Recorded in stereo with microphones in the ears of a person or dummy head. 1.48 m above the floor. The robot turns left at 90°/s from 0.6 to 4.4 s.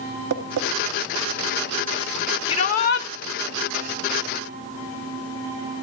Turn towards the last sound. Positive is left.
turn(degrees=-30)